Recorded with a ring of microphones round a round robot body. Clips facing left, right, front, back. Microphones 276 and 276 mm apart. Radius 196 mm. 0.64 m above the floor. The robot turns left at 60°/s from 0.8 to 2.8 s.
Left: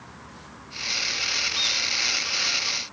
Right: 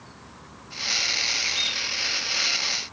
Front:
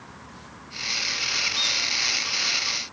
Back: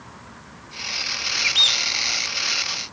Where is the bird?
170° right, 1.4 m; by 1.8 s 165° left, 1.4 m.